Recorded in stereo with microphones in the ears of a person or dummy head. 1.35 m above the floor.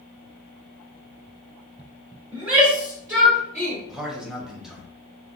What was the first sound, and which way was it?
A shout, 30° right (ahead or behind).